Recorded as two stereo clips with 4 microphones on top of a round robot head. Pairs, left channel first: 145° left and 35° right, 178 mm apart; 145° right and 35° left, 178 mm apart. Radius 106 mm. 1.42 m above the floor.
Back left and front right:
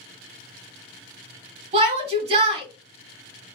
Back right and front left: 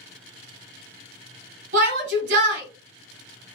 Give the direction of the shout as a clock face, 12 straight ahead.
11 o'clock.